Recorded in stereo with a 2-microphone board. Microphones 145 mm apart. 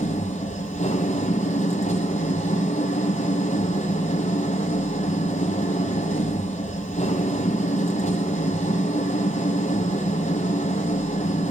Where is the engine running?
55° left (ahead or behind), 3 m.